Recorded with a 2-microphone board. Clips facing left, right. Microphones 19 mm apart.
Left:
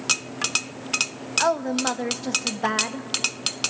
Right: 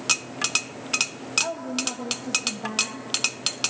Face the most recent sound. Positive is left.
turn(degrees=75)  # may be behind; listen again after turning